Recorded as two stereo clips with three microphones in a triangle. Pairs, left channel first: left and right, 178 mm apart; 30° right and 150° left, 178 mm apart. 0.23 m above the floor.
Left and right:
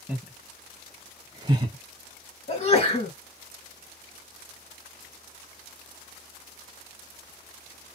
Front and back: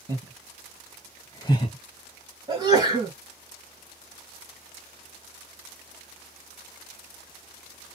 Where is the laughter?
170° right, 1.3 m; by 1.8 s 55° right, 1.3 m.